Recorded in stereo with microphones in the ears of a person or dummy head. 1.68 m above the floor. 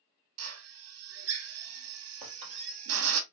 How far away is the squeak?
About 3.5 m.